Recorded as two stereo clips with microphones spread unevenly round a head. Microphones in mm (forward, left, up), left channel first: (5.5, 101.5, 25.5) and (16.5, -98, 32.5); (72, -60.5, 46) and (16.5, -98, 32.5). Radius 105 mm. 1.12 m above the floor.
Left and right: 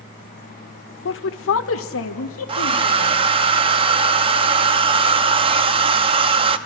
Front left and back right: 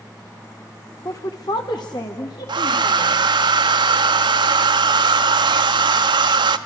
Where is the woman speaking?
95° left, 0.8 m; by 3.2 s 75° left, 4 m.